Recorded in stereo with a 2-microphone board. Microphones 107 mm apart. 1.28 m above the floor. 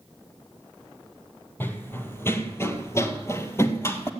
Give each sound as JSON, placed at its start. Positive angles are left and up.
{"t": 1.6, "sound": "running footsteps", "side_deg": 20, "distance_m": 1.7}